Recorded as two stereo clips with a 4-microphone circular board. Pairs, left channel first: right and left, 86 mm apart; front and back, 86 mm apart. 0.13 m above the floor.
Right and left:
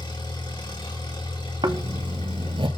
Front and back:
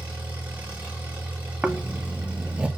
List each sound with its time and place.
0.0 s an engine running: 110° right, 6.5 m
1.6 s snoring: 100° left, 0.6 m